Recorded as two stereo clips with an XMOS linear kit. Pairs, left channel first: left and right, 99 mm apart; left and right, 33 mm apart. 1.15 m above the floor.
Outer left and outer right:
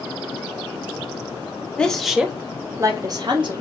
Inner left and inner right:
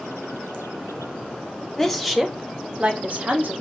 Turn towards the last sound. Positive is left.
turn(degrees=-55)  # may be behind; listen again after turning